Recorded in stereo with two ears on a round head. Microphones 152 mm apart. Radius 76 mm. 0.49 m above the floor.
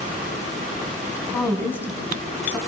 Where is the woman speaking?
10° left (ahead or behind), 3.5 m.